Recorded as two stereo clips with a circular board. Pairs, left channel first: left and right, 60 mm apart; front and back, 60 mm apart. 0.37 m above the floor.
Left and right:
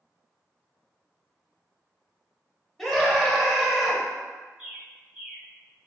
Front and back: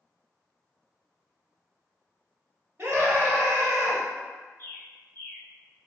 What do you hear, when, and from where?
2.8 s a scream: 170° left, 1.0 m
4.6 s a bird: 20° right, 1.0 m